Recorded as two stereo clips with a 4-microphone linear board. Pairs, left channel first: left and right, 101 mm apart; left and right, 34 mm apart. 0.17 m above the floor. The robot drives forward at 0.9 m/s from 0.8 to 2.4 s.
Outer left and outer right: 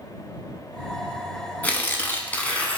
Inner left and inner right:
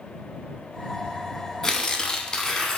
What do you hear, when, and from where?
1.6 s tearing paper: 15° left (ahead or behind), 0.6 m